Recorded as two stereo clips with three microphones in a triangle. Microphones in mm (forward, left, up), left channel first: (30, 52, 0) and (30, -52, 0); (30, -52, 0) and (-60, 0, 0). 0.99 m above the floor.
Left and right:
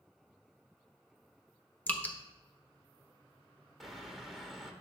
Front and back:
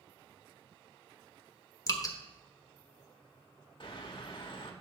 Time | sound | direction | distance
1.9 | dripping | 20° left | 1.1 m
3.8 | a bird | straight ahead | 1.4 m